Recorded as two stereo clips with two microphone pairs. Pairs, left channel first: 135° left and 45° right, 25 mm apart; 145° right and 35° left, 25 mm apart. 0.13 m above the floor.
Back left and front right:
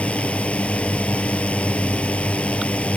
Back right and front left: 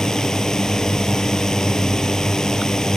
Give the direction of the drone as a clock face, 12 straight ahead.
7 o'clock.